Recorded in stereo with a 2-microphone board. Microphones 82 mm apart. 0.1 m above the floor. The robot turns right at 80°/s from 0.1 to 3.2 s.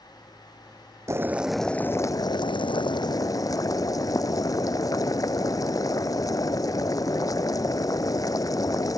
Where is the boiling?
40° right; by 9.0 s 130° left.